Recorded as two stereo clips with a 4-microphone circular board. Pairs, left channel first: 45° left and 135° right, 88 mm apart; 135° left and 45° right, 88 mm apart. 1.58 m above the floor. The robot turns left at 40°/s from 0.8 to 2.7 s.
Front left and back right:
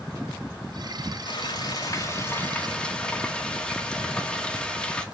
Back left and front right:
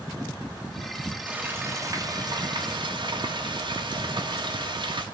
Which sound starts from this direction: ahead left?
Frying, at 1.3 s.